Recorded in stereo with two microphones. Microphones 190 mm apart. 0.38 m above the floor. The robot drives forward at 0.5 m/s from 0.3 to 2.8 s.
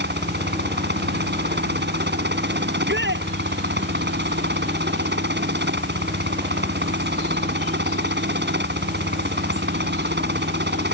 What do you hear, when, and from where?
0.0 s a helicopter: 60° right (ahead or behind); by 10.9 s 65° right (ahead or behind)
2.7 s a shout: 70° right (ahead or behind)